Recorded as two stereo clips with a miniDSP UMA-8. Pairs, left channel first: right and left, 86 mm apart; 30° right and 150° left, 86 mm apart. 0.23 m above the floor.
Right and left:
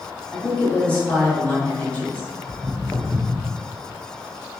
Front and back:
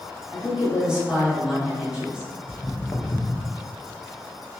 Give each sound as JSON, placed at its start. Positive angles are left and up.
{"t": 0.3, "sound": "a woman speaking", "azimuth_deg": -140, "distance_m": 1.6}
{"t": 2.5, "sound": "footsteps", "azimuth_deg": 35, "distance_m": 0.9}